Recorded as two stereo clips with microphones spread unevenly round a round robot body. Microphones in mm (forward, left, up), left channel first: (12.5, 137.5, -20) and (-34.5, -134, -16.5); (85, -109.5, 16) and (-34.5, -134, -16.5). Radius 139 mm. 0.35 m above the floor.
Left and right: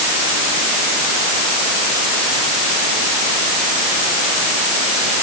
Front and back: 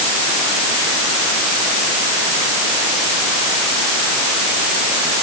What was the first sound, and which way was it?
Only background noise.